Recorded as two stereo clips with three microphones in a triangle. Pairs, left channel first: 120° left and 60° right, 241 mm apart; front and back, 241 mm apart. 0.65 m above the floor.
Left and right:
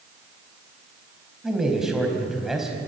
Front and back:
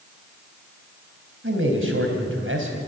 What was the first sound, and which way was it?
A man speaking, 150° right.